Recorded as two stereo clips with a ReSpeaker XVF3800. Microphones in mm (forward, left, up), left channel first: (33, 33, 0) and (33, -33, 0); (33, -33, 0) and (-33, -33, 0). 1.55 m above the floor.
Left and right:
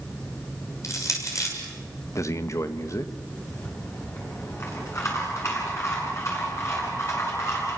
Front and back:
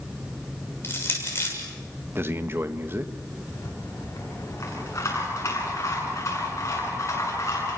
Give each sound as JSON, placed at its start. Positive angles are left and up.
{"t": 0.8, "sound": "crushing", "azimuth_deg": 50, "distance_m": 6.5}
{"t": 2.1, "sound": "a man speaking", "azimuth_deg": 125, "distance_m": 1.4}
{"t": 3.5, "sound": "a rattle", "azimuth_deg": 45, "distance_m": 9.0}